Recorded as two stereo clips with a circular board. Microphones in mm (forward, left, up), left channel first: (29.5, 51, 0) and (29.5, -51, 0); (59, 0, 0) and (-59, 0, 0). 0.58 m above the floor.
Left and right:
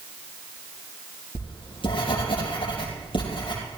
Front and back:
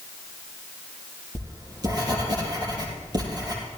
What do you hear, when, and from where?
1.4 s writing: 125° left, 5 m